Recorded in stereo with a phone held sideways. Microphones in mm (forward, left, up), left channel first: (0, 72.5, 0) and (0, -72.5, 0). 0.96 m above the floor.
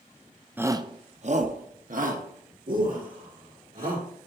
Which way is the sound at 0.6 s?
15° right (ahead or behind).